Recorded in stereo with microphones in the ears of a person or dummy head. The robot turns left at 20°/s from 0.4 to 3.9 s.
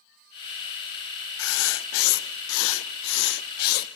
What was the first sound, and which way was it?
Writing, 100° left.